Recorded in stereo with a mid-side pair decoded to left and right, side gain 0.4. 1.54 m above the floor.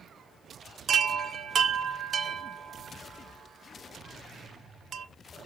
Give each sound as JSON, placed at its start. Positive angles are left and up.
{"t": 0.9, "sound": "a chime", "azimuth_deg": -50, "distance_m": 1.1}